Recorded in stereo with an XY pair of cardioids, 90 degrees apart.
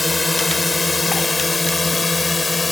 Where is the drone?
20° left; by 2.7 s 25° left.